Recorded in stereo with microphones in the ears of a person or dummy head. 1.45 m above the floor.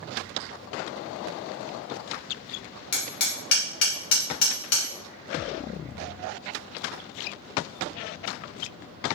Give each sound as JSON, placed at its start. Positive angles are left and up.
{"t": 2.9, "sound": "hammering", "side_deg": 60, "distance_m": 1.1}